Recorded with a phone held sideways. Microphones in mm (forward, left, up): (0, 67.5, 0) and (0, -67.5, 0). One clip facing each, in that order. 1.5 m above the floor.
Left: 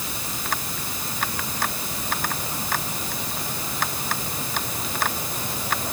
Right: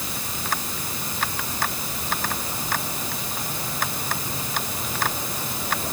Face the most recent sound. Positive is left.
No sound to turn to.